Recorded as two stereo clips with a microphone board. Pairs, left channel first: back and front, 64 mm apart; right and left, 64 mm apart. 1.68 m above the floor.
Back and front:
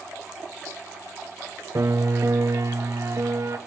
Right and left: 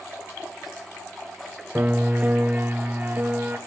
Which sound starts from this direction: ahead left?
A piano, at 1.8 s.